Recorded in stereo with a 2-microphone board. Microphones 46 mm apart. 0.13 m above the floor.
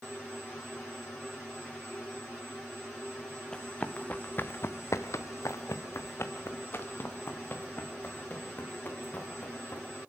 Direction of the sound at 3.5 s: 15° left (ahead or behind).